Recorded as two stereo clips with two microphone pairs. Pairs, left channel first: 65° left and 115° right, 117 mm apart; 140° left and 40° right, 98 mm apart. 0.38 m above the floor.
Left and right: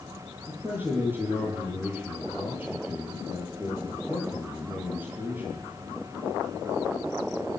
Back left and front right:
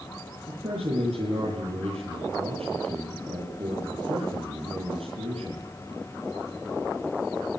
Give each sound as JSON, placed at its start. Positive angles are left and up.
{"t": 0.5, "sound": "a man speaking", "azimuth_deg": -40, "distance_m": 9.5}